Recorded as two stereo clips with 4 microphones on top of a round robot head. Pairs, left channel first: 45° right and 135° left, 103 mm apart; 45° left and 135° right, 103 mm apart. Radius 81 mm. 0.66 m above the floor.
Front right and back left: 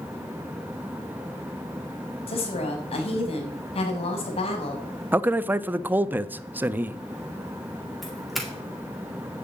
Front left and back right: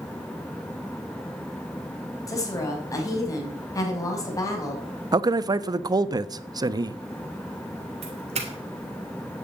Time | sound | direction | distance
2.3 | a woman speaking | 15° right | 4.5 m
5.1 | a man speaking | 160° right | 0.7 m
8.0 | a doorbell | 135° right | 3 m